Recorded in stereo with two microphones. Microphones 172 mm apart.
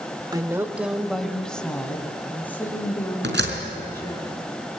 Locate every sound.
0.3 s a woman speaking: 20° right (ahead or behind), 1.0 m; by 4.2 s 15° left (ahead or behind), 6.5 m
3.2 s a door slam: 80° right, 4.5 m